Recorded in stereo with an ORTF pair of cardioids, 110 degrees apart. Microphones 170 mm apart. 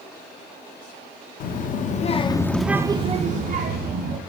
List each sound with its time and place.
1.4 s a child speaking: 60° left, 1.4 m; by 4.2 s 70° right, 1.7 m